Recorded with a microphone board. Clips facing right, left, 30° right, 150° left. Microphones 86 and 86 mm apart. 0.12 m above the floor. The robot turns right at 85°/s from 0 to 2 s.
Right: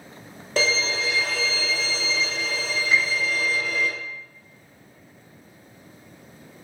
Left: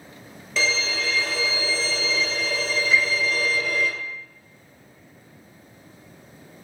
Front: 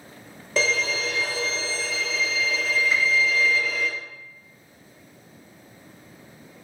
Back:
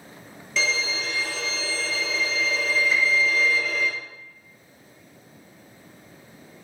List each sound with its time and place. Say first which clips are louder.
0.6 s a violin: right 1 dB, front 3 dB; 60° right, 0.7 m; by 3.9 s 60° left, 0.7 m
2.9 s a piano: even, front 1 dB; 55° right, 1.3 m